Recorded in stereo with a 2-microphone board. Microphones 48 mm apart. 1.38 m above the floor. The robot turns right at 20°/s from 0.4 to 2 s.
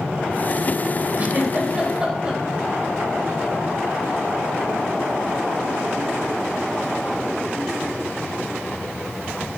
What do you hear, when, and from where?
1.2 s a giggle: 35° right (ahead or behind), 3.5 m; by 2.4 s 20° right (ahead or behind), 3.5 m